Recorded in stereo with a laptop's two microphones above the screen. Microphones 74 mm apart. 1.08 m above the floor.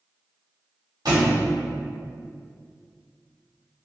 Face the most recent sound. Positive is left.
turn(degrees=-70)  # may be behind; listen again after turning